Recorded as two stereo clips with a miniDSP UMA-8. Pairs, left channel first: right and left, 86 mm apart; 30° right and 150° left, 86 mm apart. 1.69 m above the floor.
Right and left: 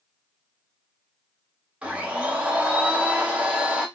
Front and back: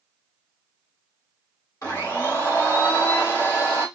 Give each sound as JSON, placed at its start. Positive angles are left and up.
{"t": 1.8, "sound": "a blender", "azimuth_deg": 10, "distance_m": 2.0}